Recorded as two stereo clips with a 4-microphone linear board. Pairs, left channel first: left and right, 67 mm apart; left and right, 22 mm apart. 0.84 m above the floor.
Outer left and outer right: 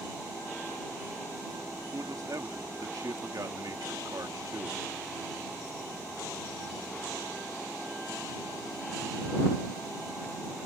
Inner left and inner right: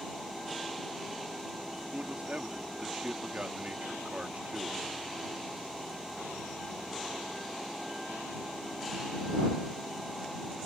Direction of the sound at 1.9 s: 60° right (ahead or behind).